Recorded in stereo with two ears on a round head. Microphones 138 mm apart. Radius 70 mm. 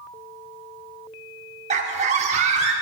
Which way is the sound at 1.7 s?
45° right (ahead or behind).